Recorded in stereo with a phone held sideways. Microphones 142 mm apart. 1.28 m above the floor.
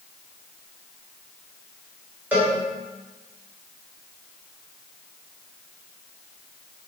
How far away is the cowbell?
About 2.5 m.